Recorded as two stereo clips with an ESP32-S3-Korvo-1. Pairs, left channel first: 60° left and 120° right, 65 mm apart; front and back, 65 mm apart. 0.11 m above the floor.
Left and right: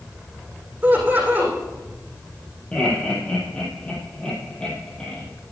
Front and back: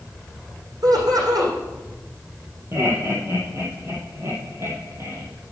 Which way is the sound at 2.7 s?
135° left.